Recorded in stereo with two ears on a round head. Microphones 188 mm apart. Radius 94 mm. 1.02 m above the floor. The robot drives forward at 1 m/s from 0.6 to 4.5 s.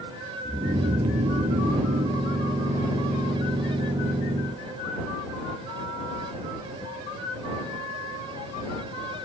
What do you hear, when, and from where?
0.5 s snoring: 35° right (ahead or behind); by 2.2 s 40° right (ahead or behind)